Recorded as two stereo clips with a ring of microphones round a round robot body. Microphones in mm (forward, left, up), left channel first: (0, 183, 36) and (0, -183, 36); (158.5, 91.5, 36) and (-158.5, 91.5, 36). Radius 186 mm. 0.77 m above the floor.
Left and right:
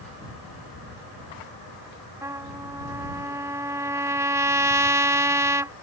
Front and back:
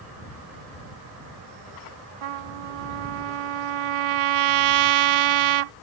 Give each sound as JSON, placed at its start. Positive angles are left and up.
{"t": 2.2, "sound": "a trumpet", "azimuth_deg": -170}